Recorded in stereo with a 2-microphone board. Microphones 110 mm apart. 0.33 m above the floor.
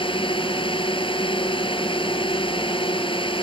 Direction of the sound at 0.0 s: 50° left (ahead or behind).